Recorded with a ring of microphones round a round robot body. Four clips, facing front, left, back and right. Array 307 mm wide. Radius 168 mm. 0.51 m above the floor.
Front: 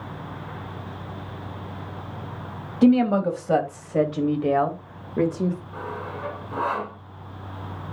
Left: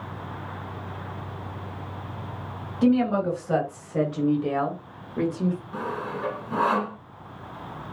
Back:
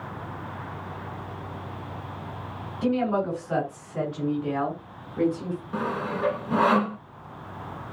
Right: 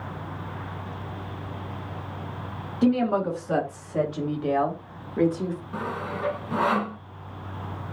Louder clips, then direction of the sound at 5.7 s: Even, back 4 dB; 175° right.